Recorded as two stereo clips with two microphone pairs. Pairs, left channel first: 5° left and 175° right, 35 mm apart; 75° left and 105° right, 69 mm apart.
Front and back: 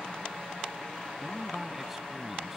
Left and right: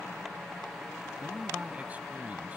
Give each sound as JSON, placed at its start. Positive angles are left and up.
{"t": 1.2, "sound": "a man speaking", "azimuth_deg": -105}